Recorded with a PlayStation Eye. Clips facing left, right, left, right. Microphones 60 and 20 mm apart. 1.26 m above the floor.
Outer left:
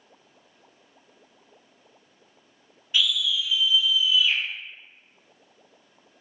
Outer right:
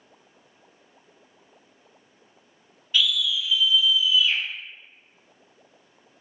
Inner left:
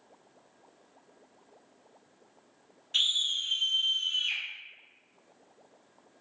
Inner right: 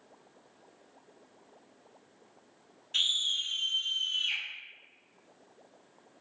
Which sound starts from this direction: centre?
A scream, at 2.9 s.